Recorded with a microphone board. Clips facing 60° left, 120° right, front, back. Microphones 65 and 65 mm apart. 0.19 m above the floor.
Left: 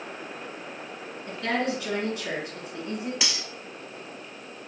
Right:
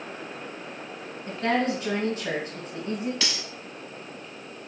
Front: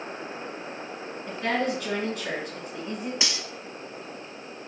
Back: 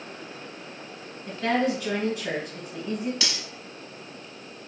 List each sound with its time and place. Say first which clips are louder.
1.3 s a woman speaking: right 3 dB, back 2 dB; 105° right, 1.4 m
3.2 s cutlery clinking: even, even; 10° left, 0.6 m